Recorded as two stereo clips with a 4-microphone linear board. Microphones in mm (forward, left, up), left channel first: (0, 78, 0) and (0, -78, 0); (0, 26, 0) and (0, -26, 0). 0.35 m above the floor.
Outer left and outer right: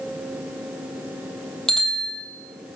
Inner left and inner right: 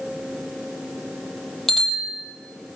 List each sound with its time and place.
1.7 s a bicycle bell: centre (ahead or behind), 7 m